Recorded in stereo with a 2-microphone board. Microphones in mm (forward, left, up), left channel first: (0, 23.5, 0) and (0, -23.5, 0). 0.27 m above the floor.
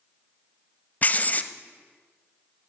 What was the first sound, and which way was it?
Writing, 35° left (ahead or behind).